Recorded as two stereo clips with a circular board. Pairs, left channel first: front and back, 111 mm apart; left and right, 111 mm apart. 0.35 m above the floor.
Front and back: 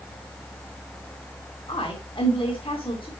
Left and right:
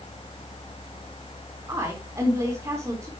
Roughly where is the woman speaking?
Ahead right.